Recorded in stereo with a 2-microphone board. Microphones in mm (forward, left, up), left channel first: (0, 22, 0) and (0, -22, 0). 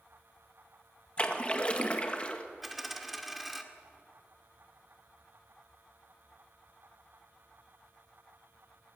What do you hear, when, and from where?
1.2 s a splash: 30° left (ahead or behind), 1.9 m
2.6 s a dropped coin: 5° right (ahead or behind), 1.7 m